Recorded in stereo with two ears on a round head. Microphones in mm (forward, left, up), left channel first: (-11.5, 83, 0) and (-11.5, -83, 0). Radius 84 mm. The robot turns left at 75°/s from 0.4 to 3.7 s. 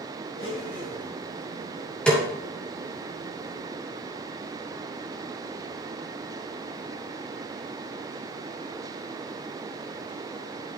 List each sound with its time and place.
0.4 s a blender: 75° left, 3.5 m; by 1.1 s 25° left, 3.5 m
2.1 s a snare drum: 5° left (ahead or behind), 2.5 m; by 2.2 s 10° right (ahead or behind), 2.5 m